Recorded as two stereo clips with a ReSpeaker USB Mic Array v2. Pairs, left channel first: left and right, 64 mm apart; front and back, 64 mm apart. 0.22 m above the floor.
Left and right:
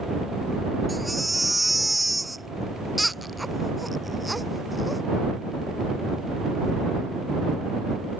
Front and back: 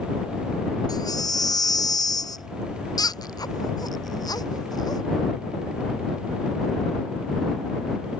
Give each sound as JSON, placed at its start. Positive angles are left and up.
{"t": 0.9, "sound": "a baby crying", "azimuth_deg": 0}